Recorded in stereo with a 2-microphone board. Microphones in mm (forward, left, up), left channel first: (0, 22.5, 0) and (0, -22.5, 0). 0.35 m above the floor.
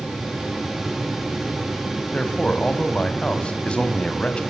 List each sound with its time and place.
2.1 s a man speaking: 25° left (ahead or behind), 2.5 m